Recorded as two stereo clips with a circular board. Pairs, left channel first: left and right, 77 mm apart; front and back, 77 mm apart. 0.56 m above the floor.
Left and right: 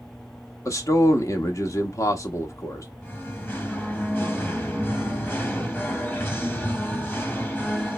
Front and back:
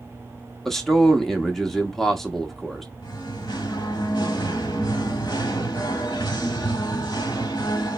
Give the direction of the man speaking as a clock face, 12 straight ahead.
9 o'clock.